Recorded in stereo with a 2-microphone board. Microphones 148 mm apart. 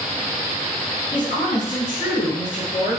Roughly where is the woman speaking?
Left.